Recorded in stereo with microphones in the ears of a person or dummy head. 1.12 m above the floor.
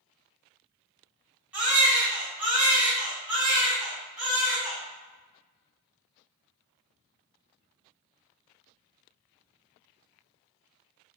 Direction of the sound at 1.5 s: 5° right (ahead or behind).